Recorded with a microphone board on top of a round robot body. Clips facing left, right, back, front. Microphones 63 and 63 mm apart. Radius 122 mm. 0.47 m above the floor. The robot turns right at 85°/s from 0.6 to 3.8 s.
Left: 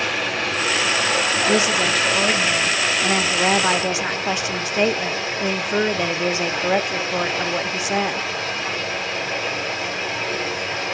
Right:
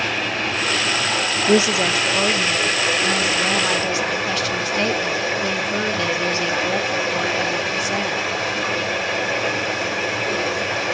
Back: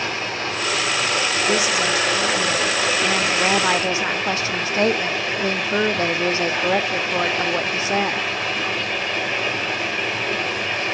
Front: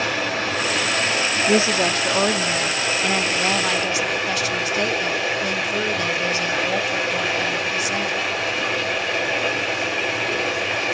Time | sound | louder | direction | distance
0.0 | running water | even, front 2 dB | 5° left | 6.5 m
1.5 | a woman speaking | right 4 dB, front 3 dB | 50° right | 0.8 m